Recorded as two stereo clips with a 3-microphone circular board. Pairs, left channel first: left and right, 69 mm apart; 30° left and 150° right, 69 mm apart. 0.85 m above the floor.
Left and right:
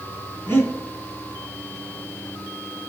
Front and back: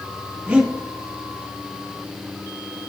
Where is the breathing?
145° left, 2.5 m.